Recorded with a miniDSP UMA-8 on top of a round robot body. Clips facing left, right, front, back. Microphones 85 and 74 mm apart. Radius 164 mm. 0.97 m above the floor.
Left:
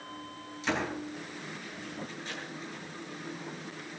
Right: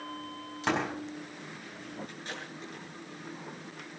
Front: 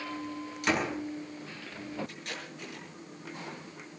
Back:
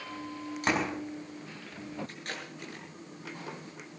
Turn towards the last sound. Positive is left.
turn(degrees=-130)